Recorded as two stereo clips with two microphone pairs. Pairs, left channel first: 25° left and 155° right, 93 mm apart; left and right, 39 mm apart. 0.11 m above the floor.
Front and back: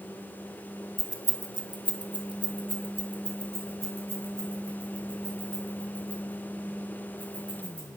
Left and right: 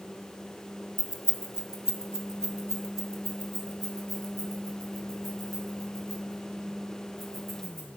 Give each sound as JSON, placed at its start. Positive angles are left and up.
{"t": 1.0, "sound": "keys jangling", "azimuth_deg": -115, "distance_m": 1.0}